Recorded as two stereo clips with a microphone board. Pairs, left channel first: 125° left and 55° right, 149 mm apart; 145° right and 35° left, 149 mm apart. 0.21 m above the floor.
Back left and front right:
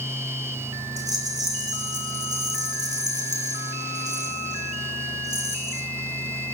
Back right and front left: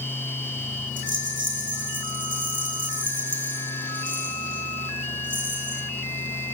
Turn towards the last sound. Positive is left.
turn(degrees=10)